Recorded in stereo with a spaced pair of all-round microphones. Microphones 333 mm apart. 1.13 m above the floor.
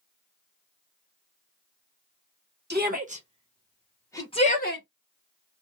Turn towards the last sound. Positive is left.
turn(degrees=35)  # may be behind; listen again after turning